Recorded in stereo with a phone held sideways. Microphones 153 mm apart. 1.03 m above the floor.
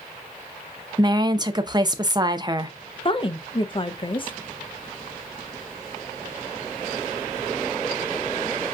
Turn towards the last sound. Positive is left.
turn(degrees=35)  # may be behind; listen again after turning